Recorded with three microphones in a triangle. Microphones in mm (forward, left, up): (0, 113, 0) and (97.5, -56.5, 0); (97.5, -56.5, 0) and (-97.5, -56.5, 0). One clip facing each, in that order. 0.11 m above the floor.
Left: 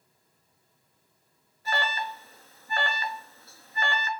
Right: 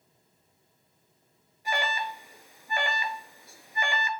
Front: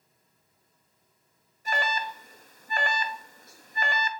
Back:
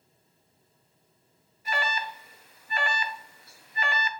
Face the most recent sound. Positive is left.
turn(degrees=10)